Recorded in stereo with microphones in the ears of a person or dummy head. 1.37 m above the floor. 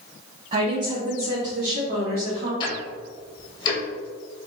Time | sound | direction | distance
0.5 | a woman speaking | 35° right (ahead or behind) | 0.7 m
2.6 | ticking | 25° left (ahead or behind) | 1.1 m